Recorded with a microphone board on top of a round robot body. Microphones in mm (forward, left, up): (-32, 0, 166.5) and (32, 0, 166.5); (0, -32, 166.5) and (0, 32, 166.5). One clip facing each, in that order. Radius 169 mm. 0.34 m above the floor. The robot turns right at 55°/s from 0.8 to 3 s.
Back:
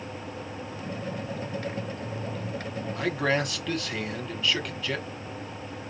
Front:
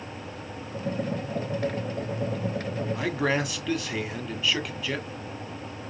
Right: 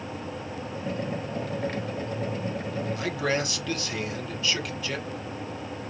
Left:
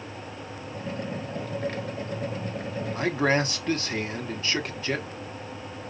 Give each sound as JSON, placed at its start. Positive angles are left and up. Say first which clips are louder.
{"t": 3.0, "sound": "a man speaking", "louder": "back 1 dB, left 5 dB", "azimuth_deg": 75, "distance_m": 1.5}